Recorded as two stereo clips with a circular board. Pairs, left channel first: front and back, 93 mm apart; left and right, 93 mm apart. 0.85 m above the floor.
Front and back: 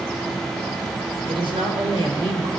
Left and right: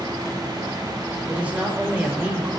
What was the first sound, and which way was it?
A woman speaking, 165° right.